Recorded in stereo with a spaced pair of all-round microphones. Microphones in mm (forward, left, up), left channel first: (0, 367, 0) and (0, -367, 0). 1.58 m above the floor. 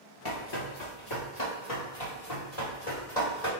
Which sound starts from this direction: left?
Running footsteps, at 0.2 s.